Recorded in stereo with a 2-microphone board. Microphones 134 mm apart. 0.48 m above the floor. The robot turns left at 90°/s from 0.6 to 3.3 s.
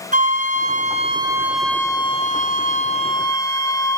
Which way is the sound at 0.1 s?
90° right.